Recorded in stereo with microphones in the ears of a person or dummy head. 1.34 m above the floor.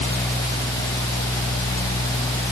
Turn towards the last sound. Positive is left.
No sound to turn to.